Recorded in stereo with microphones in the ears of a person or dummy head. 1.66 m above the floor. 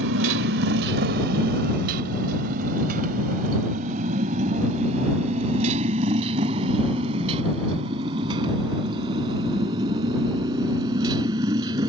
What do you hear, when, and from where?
0.0 s a motorcycle: 65° right (ahead or behind); by 11.9 s 20° right (ahead or behind)